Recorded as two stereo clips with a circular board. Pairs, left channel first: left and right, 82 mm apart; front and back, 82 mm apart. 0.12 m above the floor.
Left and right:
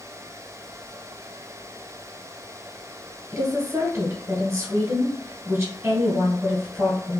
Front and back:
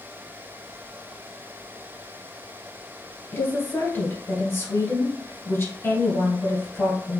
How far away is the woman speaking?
About 1.7 m.